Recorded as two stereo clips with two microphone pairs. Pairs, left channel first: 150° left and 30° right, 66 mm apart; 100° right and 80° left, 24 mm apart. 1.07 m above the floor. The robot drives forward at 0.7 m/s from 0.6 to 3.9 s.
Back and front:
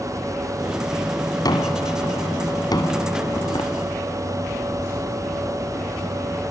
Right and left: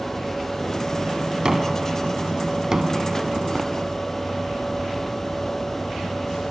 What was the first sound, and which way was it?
A gunshot, 135° left.